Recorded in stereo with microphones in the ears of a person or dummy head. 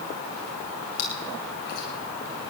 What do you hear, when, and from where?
1.0 s chewing: 50° left (ahead or behind), 7.5 m